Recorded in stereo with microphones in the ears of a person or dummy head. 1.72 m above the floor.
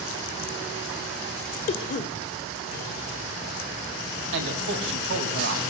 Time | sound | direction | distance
1.7 | a cough | 45° left (ahead or behind) | 0.7 m
4.3 | a man speaking | 75° right (ahead or behind) | 2.5 m